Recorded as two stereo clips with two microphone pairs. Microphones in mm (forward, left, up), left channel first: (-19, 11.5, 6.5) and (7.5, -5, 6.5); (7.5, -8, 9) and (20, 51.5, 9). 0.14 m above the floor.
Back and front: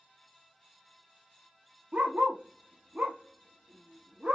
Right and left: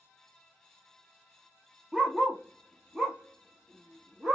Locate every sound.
1.9 s a dog barking: 5° left, 1.2 m